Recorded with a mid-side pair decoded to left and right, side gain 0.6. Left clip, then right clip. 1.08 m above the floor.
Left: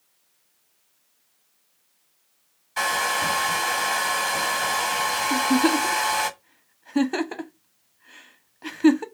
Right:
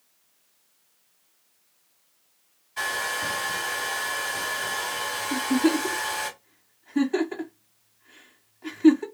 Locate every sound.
2.8 s a hair dryer: 65° left, 1.2 m
5.3 s a giggle: 50° left, 0.9 m